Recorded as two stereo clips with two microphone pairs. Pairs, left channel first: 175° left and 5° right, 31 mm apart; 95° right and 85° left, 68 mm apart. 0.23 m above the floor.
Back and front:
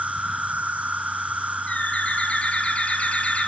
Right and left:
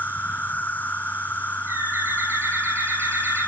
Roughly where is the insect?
Ahead right.